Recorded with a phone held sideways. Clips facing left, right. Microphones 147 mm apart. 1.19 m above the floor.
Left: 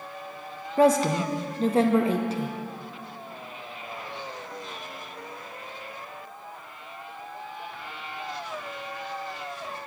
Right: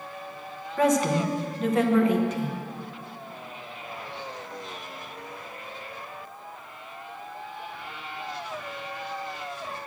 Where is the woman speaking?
30° left (ahead or behind), 0.8 m.